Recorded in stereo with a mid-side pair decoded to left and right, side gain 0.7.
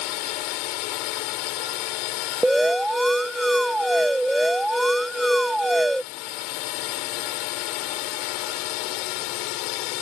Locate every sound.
0.0 s a drone: 70° left
2.4 s an alarm: 5° right